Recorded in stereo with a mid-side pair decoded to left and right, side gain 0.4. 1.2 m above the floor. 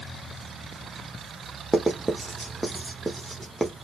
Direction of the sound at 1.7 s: 5° right.